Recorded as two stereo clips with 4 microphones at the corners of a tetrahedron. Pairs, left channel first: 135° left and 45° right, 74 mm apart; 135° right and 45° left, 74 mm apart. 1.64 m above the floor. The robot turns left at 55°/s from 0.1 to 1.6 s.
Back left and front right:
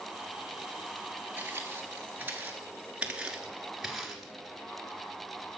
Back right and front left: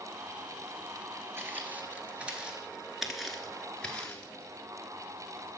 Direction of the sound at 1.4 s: 5° left.